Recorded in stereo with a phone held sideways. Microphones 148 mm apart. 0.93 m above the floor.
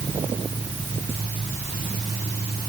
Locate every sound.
Only background noise.